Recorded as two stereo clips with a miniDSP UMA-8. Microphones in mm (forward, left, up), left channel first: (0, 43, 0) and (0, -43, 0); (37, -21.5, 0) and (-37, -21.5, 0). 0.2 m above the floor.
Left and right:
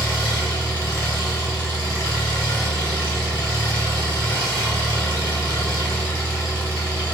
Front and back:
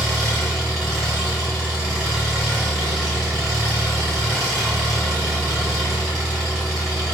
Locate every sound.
0.0 s an engine running: 105° left, 1.4 m